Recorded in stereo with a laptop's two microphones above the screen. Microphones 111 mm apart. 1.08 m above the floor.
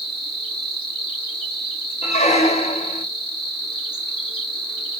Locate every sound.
0.0 s an insect: 50° left (ahead or behind), 3 m
2.0 s a squeak: 80° left, 1.3 m